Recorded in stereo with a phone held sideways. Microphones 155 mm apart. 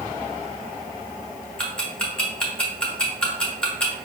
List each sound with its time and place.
1.6 s ticking: 5° left (ahead or behind), 1.1 m